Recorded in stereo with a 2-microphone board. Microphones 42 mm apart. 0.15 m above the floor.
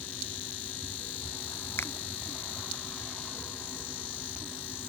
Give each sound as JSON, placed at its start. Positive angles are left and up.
{"t": 1.8, "sound": "a finger snap", "side_deg": 70}